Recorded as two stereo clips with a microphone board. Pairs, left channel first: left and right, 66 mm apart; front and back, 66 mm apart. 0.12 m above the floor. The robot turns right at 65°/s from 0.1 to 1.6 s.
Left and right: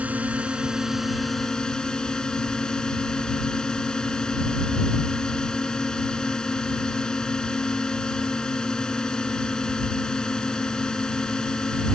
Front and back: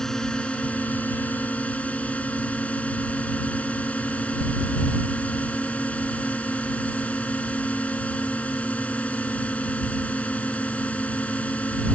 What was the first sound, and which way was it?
A drone, 70° right.